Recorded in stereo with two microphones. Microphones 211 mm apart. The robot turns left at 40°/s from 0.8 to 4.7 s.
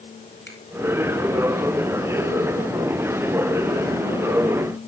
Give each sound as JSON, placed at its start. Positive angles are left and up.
{"t": 0.5, "sound": "a finger snap", "side_deg": 55, "distance_m": 5.0}